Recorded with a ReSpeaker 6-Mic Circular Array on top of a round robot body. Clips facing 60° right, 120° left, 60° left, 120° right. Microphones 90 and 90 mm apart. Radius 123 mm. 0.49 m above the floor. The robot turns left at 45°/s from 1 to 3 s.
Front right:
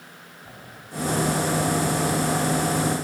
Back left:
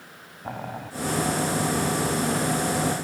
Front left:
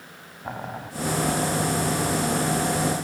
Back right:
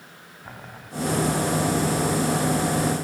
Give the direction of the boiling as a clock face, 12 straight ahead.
8 o'clock.